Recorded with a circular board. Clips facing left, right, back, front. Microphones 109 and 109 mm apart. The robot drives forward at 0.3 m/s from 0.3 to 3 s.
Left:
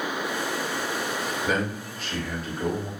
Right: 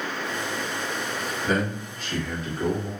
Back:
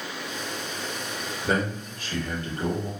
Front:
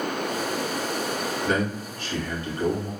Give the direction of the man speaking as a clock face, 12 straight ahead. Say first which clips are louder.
Right 3 dB, back 1 dB; 6 o'clock.